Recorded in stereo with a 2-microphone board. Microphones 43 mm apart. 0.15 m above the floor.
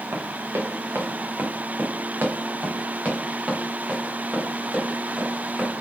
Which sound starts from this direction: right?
Running footsteps, at 0.1 s.